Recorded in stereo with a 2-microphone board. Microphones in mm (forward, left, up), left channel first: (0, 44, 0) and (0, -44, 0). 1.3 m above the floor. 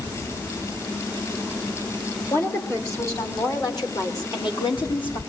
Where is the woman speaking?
30° left (ahead or behind), 5.5 m; by 5.2 s 75° left (ahead or behind), 4 m.